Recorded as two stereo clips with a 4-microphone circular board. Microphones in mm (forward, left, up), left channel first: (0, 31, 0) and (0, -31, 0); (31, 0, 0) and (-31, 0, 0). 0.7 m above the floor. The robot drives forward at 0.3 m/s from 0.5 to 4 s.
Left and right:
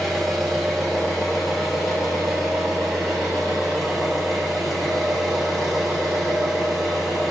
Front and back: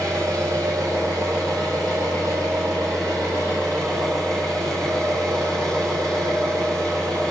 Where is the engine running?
175° left, 4.5 m.